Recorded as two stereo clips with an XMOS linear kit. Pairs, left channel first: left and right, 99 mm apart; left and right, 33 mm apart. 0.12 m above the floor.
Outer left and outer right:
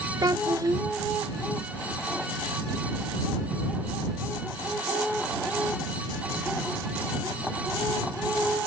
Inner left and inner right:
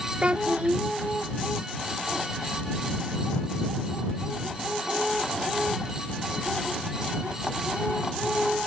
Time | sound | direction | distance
0.2 | a child speaking | 40° right (ahead or behind) | ?